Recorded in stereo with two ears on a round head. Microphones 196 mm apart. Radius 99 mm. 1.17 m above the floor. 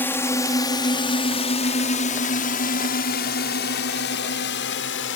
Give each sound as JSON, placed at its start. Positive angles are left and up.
{"t": 0.0, "sound": "a drone", "side_deg": 10}